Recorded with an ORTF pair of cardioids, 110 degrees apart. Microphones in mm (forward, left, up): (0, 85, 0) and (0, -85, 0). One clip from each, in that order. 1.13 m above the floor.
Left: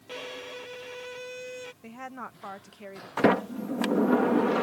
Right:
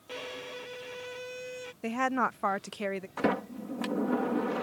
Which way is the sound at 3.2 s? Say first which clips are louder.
Left 8 dB; 40° left.